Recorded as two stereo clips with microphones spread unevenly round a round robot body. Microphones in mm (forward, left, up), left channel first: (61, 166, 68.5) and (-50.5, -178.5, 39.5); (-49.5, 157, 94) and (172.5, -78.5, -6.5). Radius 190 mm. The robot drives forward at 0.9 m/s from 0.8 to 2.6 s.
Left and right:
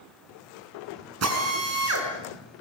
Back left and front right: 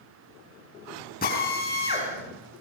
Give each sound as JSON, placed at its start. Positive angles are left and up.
{"t": 1.2, "sound": "a drill", "azimuth_deg": -155, "distance_m": 5.5}